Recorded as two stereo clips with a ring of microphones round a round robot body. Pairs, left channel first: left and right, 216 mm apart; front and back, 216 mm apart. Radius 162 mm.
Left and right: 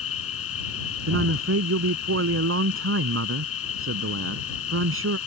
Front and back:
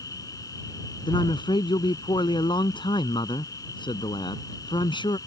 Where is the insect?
80° left.